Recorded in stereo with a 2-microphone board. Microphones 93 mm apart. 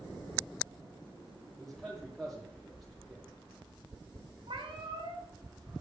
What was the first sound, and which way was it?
A man speaking, 5° left (ahead or behind).